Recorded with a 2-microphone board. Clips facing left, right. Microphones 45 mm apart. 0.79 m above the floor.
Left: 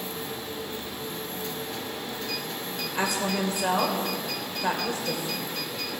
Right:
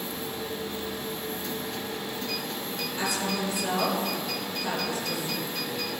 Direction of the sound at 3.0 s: 50° left (ahead or behind).